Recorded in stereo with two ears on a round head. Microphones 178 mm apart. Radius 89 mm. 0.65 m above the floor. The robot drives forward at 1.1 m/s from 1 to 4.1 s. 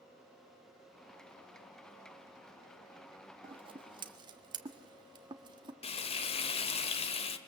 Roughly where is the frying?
Left.